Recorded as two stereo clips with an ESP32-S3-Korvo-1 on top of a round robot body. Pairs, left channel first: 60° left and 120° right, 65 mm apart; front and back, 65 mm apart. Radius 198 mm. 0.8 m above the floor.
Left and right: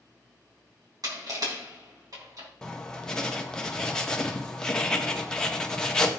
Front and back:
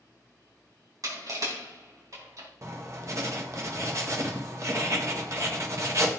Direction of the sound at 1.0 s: 145° right.